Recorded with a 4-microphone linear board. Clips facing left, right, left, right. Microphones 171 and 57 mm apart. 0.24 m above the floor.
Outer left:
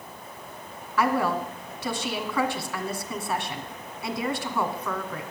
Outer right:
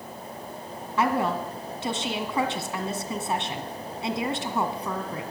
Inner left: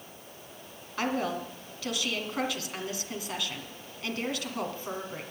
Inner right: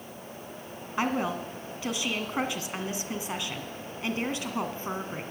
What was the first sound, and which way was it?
A woman speaking, 25° right (ahead or behind).